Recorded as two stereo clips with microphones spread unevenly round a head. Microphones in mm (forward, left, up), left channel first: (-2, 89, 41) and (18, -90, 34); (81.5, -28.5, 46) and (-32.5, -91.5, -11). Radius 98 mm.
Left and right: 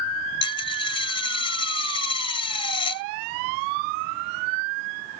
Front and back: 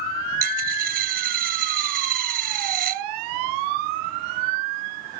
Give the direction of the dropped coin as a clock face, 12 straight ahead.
7 o'clock.